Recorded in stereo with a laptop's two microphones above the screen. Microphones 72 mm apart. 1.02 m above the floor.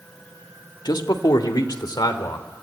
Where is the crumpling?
No crumpling in this recording.